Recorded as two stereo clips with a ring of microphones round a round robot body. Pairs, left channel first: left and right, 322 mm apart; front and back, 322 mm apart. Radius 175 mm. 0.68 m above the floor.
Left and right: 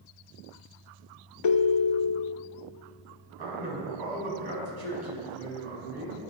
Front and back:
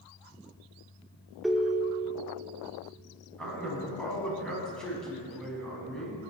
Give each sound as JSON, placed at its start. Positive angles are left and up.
{"t": 1.4, "sound": "a ringtone", "azimuth_deg": 90, "distance_m": 0.6}
{"t": 3.4, "sound": "a man speaking", "azimuth_deg": -90, "distance_m": 4.5}